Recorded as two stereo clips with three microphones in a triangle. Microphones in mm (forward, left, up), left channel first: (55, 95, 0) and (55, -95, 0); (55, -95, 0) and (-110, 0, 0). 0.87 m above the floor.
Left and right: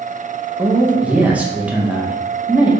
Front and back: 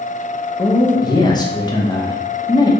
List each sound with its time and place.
0.6 s a man speaking: 20° right, 0.5 m